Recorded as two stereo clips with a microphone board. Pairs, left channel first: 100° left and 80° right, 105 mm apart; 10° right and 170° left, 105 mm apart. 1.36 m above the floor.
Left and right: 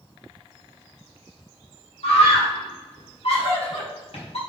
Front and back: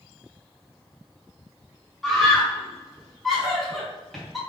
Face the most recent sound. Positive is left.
turn(degrees=80)